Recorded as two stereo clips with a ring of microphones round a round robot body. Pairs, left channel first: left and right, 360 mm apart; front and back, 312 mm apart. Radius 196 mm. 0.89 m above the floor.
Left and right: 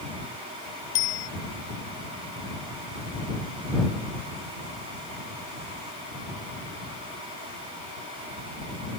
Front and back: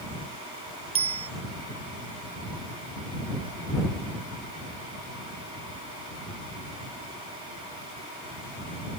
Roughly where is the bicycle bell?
Left.